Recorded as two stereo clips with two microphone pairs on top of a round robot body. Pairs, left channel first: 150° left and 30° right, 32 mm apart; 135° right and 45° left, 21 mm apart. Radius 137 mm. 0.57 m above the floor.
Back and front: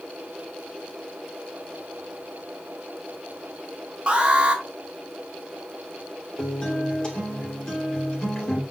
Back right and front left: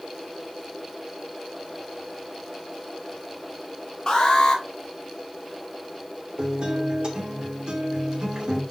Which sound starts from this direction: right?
An alarm, at 4.1 s.